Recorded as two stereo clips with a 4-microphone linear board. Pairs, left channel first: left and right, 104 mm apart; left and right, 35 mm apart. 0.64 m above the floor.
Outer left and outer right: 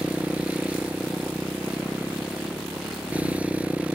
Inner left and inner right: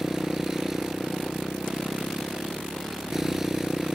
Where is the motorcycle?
15° right (ahead or behind).